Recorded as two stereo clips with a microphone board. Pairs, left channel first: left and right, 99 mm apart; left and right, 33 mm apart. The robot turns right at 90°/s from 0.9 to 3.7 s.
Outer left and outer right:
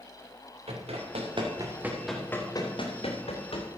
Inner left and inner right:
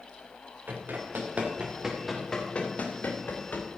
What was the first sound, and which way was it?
Running footsteps, 90° right.